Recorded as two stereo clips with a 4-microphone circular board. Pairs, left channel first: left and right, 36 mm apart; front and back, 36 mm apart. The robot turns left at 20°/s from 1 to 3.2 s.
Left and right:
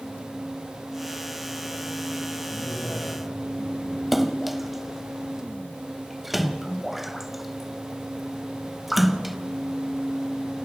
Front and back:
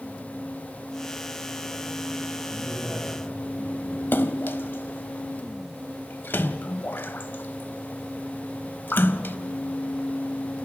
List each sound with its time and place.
2.5 s a man speaking: 125° left, 9 m; by 4.0 s 110° left, 9 m
4.1 s a splash: 5° right, 0.6 m